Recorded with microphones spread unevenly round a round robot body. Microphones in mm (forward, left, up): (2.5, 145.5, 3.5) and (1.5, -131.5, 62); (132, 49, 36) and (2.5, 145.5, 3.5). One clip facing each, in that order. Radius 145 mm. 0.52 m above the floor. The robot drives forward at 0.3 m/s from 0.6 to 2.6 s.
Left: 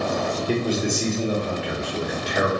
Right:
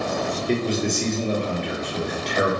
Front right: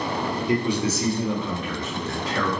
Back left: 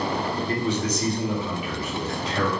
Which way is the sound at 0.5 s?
45° left.